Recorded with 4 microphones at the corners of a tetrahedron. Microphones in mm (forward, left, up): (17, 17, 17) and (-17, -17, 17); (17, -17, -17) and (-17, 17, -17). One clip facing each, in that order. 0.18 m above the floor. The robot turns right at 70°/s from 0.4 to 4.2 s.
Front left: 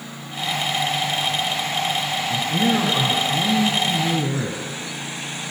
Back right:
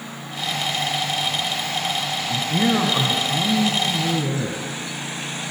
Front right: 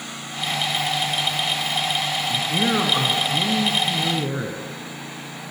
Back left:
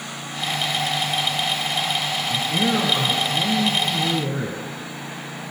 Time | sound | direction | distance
2.3 | a man speaking | 120° right | 1.2 m